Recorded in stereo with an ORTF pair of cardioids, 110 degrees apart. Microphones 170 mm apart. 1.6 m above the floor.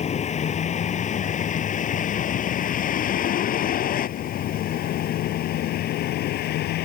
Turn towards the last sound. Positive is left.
turn(degrees=70)